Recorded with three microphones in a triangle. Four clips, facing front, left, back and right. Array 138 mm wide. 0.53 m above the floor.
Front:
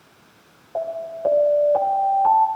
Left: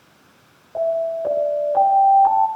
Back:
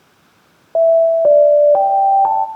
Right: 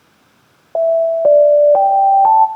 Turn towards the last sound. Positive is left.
turn(degrees=-125)